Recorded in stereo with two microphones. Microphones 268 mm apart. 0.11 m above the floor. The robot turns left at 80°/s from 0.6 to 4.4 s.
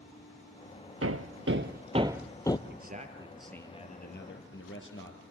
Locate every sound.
1.0 s hammering: 65° right (ahead or behind), 0.7 m; by 2.6 s 20° left (ahead or behind), 0.7 m
2.7 s a man speaking: 120° right, 2.5 m; by 5.2 s 105° left, 2.5 m